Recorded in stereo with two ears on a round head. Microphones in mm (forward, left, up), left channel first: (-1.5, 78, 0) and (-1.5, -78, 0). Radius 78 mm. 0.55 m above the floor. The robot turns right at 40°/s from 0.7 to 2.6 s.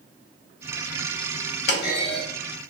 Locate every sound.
1.7 s a clunk: 65° left (ahead or behind), 1.3 m; by 2.2 s 60° left (ahead or behind), 1.3 m